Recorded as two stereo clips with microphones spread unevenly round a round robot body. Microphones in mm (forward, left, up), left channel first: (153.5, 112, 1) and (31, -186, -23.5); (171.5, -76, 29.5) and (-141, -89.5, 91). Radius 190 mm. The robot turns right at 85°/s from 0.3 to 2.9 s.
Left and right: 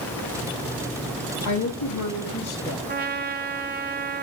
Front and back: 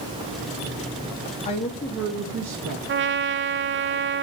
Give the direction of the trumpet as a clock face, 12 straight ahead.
4 o'clock.